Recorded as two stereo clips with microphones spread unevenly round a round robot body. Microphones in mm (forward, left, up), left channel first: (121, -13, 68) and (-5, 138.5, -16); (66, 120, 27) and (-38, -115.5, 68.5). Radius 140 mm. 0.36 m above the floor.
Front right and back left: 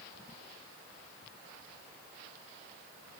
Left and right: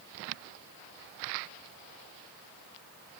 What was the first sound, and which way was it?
Only background noise.